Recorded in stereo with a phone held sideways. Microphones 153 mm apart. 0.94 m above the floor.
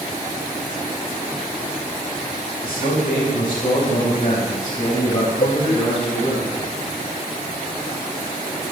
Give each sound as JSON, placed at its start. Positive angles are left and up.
{"t": 2.6, "sound": "a man speaking", "side_deg": 80, "distance_m": 3.5}
{"t": 5.4, "sound": "a cowbell", "side_deg": 65, "distance_m": 1.4}